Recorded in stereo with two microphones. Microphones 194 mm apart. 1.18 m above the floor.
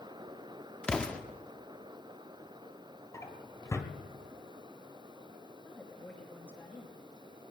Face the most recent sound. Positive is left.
turn(degrees=10)  # may be behind; listen again after turning